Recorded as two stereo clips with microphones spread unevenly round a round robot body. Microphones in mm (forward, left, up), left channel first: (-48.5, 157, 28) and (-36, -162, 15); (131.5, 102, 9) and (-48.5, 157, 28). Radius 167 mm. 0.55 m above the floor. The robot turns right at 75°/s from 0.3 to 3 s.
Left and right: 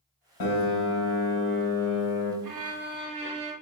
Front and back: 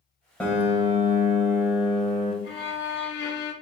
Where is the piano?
65° left, 1.4 m; by 2.3 s 150° right, 1.4 m.